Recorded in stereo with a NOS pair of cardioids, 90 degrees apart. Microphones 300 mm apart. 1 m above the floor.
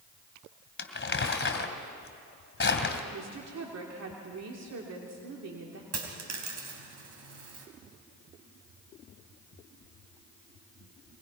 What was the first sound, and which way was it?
Crumpling, 35° left.